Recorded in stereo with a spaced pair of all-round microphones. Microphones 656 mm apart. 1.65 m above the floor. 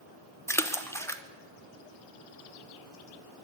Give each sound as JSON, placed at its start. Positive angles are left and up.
{"t": 0.5, "sound": "a splash", "side_deg": 5, "distance_m": 0.8}